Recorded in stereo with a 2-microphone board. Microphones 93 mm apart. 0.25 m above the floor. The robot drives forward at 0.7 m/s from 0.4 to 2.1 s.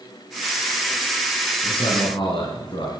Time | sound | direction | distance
1.6 | a man speaking | 65° left (ahead or behind) | 3 m